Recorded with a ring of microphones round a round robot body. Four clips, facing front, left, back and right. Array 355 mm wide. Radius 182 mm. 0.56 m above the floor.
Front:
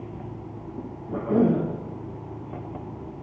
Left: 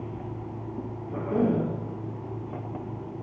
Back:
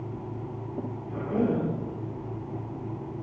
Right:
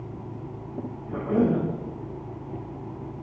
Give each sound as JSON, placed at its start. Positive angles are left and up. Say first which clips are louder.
{"t": 1.1, "sound": "a cough", "louder": "right 2 dB, front 6 dB", "azimuth_deg": -20, "distance_m": 5.5}